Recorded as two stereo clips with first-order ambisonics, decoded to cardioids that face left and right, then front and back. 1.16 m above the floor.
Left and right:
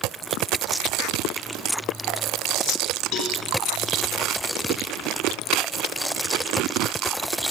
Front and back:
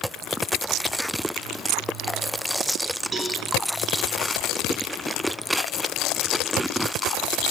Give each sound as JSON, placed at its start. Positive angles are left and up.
{"t": 3.1, "sound": "a cowbell", "azimuth_deg": 105, "distance_m": 3.0}